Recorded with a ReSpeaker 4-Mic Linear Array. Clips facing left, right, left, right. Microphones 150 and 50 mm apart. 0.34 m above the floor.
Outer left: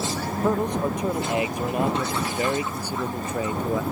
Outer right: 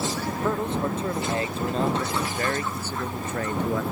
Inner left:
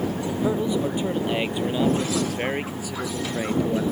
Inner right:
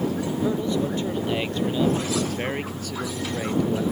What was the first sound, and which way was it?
A man speaking, 15° left (ahead or behind).